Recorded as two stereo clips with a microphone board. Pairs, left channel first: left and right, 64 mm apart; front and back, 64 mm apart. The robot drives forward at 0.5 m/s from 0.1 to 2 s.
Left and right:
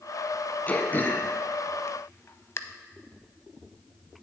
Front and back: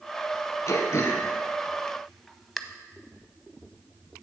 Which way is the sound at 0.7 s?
30° left.